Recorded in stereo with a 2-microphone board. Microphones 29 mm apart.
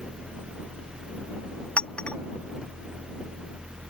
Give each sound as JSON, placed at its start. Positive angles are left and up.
{"t": 1.8, "sound": "a clink", "side_deg": 40}